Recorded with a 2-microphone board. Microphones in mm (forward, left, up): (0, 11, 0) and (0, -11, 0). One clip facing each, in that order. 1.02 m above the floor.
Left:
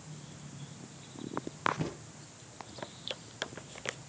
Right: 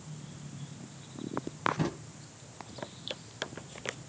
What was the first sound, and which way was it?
A drawer, 65° right (ahead or behind).